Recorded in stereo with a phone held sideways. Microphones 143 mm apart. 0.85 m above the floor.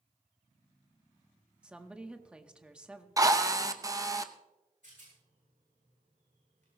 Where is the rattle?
65° right (ahead or behind), 8.5 m.